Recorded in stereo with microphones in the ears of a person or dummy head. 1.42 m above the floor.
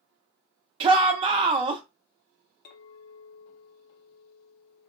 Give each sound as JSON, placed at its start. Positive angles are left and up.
{"t": 0.8, "sound": "a shout", "side_deg": -30, "distance_m": 0.5}
{"t": 2.6, "sound": "a clink", "side_deg": 50, "distance_m": 0.6}